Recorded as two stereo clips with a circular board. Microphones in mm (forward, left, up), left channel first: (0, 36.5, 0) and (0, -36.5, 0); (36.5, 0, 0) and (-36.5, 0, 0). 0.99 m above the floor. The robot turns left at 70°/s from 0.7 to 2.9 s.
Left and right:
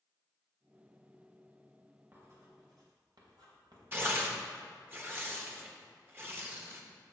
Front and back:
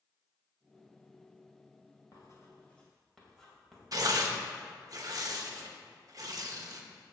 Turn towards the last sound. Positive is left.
turn(degrees=-150)